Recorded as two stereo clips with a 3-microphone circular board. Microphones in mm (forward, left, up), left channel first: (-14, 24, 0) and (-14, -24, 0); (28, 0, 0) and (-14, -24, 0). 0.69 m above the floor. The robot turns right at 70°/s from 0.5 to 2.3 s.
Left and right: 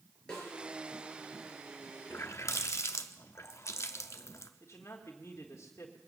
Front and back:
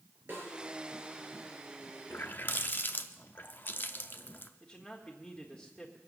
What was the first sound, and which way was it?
A snare drum, 165° left.